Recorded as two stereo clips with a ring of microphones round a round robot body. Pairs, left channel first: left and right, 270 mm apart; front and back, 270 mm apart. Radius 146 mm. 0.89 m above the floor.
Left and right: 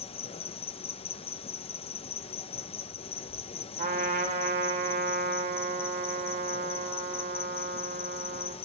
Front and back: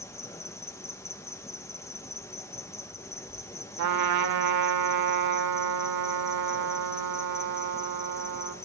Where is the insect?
65° left, 0.7 m.